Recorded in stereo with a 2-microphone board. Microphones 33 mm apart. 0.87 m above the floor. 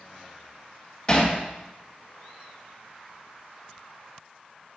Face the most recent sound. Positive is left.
turn(degrees=30)  # may be behind; listen again after turning